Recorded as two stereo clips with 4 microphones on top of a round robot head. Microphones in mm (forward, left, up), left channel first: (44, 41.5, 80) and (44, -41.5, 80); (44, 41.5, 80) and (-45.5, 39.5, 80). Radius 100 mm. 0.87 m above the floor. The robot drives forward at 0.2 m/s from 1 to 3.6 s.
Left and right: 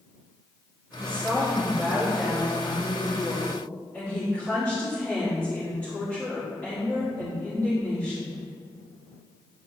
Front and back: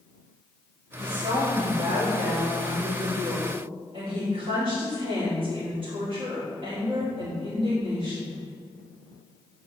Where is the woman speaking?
155° left, 2 m; by 8.4 s 160° left, 2.5 m.